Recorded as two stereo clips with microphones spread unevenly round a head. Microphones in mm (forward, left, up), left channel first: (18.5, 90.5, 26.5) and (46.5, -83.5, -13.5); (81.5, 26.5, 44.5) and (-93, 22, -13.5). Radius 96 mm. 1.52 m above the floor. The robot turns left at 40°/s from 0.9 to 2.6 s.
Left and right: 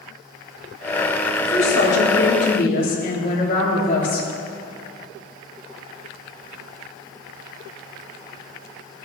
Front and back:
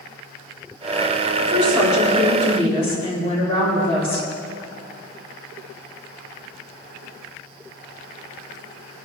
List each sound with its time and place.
1.4 s a woman speaking: 105° left, 4 m; by 4.3 s 60° left, 4 m